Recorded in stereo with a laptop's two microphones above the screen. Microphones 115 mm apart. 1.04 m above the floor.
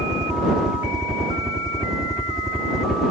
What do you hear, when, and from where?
0.0 s a helicopter: 5° right (ahead or behind); by 3.1 s centre (ahead or behind)